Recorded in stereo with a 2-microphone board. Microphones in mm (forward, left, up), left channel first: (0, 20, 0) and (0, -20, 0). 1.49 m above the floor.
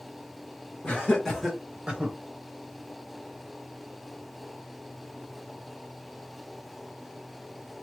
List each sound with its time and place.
0.8 s laughter: 30° left (ahead or behind), 1.0 m; by 2.1 s 35° right (ahead or behind), 1.1 m